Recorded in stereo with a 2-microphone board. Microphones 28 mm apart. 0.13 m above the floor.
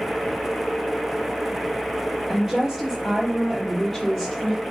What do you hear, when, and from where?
2.3 s a woman speaking: 15° right (ahead or behind), 4.5 m; by 4.6 s 5° left (ahead or behind), 4.5 m